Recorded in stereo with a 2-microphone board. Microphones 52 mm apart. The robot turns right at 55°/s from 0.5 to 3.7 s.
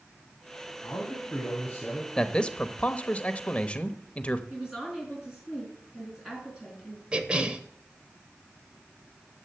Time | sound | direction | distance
0.8 | a man speaking | 85° left | 3 m
2.2 | a man speaking | 15° left (ahead or behind) | 0.9 m
4.5 | a woman speaking | 15° right (ahead or behind) | 4.5 m
7.1 | a cough | 25° right (ahead or behind) | 1.1 m